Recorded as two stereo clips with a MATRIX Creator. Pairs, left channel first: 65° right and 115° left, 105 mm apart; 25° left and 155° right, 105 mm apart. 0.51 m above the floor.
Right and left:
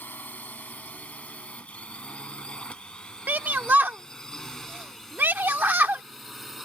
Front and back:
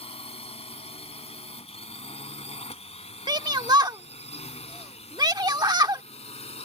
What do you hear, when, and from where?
0.0 s a drone: 5° left; by 6.7 s 25° left
3.3 s a shout: straight behind